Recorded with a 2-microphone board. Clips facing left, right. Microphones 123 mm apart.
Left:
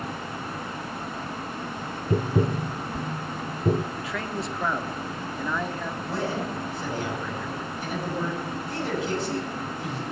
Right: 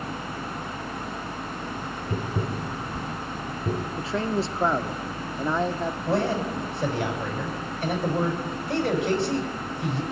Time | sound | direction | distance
2.1 | tapping | 35° left (ahead or behind) | 0.6 m
4.0 | a man speaking | 30° right (ahead or behind) | 0.7 m
6.1 | a man speaking | 65° right (ahead or behind) | 4 m